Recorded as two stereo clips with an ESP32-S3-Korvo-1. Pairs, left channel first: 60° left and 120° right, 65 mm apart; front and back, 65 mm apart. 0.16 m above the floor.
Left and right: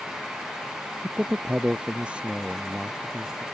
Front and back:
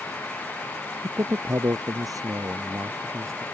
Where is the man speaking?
Straight behind; by 3.4 s 155° left.